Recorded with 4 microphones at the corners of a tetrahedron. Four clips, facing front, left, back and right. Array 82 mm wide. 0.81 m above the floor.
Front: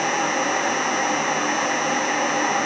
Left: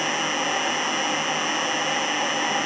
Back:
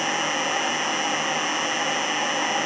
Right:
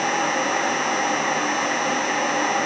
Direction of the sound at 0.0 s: 40° right.